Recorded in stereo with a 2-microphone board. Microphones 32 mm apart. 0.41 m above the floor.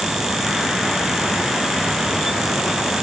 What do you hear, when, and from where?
Only background noise.